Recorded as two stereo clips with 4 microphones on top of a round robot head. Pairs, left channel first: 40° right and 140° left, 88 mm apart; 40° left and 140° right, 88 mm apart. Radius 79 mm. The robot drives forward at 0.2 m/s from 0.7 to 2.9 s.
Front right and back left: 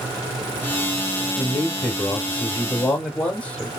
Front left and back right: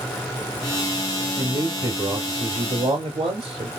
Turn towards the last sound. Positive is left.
turn(degrees=-115)